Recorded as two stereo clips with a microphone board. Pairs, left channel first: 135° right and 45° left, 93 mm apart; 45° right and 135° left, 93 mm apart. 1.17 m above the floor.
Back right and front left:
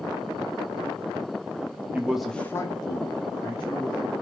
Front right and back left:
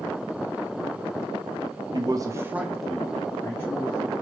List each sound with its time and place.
1.9 s a man speaking: 115° left, 0.6 m; by 4.1 s 105° right, 1.3 m